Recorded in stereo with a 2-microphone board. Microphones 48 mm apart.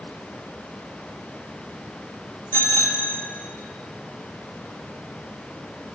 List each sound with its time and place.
2.5 s a bicycle bell: 55° left (ahead or behind), 2.5 m